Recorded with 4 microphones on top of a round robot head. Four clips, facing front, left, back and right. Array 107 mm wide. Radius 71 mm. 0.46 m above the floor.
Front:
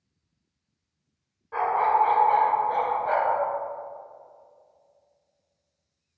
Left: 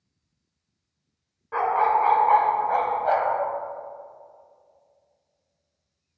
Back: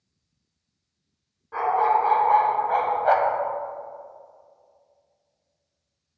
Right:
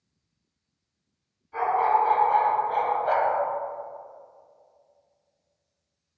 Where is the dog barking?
95° left, 1.9 m; by 3.4 s 175° right, 1.0 m.